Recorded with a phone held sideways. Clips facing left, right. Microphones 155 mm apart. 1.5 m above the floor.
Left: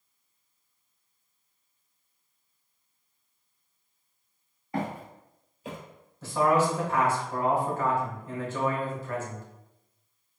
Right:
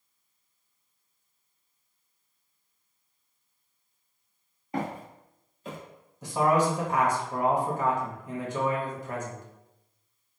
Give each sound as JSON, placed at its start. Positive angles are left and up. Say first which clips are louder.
{"t": 4.7, "sound": "footsteps", "louder": "even", "side_deg": -20, "distance_m": 1.5}
{"t": 6.2, "sound": "a man speaking", "louder": "even", "side_deg": -15, "distance_m": 0.7}